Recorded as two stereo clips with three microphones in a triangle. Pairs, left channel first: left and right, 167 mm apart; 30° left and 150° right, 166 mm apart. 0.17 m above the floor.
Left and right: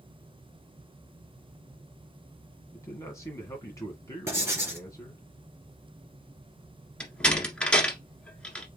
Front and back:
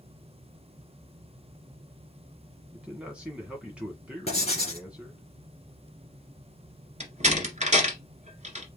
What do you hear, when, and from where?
2.7 s a man speaking: 135° left, 1.5 m
4.3 s writing: 20° right, 2 m
7.0 s a door slam: 175° left, 1.5 m